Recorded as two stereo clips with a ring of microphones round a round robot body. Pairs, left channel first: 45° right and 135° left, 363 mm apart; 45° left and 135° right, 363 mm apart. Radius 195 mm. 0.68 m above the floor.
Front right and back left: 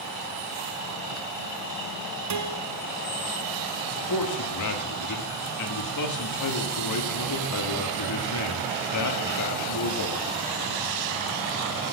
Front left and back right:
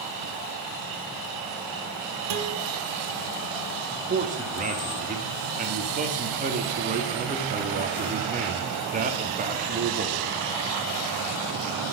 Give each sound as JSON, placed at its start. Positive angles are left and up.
{"t": 2.3, "sound": "a guitar", "azimuth_deg": 180, "distance_m": 1.5}
{"t": 3.9, "sound": "a man speaking", "azimuth_deg": -70, "distance_m": 1.4}